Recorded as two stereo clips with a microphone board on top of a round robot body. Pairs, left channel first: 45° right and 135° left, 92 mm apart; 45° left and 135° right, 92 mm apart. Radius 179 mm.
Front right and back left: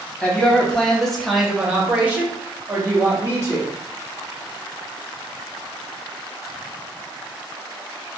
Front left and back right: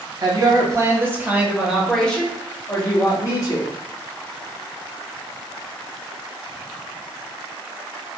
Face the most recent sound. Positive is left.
turn(degrees=80)